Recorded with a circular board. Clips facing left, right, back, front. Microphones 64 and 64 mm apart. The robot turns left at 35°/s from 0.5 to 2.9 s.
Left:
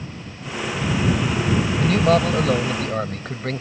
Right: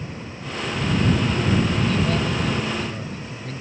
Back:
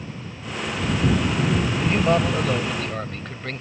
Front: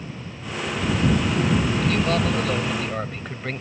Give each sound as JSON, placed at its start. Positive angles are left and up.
{"t": 1.8, "sound": "a man speaking", "azimuth_deg": 120}